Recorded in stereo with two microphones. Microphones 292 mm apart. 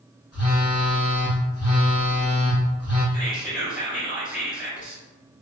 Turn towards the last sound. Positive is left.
turn(degrees=25)  # may be behind; listen again after turning